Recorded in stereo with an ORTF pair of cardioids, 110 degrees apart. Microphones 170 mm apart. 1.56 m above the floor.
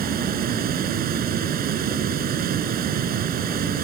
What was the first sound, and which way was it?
Running water, 60° right.